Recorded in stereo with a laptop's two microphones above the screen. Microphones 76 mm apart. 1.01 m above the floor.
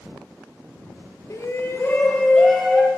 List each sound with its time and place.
1.3 s a shout: 40° left (ahead or behind), 0.8 m; by 2.9 s 5° right (ahead or behind), 0.8 m